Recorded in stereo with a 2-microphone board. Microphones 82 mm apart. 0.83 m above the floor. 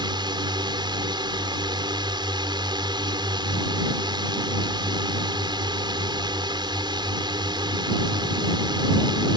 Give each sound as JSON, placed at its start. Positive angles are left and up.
{"t": 0.0, "sound": "a drone", "side_deg": -65}